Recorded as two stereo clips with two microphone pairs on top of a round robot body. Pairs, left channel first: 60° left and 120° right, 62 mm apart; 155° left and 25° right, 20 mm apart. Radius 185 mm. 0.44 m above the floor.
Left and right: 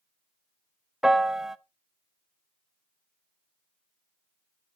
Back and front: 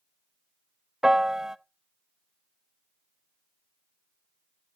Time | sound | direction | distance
1.0 | a piano | 55° right | 0.8 m